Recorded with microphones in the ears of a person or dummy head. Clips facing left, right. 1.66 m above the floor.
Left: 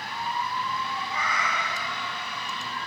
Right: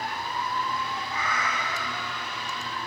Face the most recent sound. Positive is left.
turn(degrees=20)  # may be behind; listen again after turning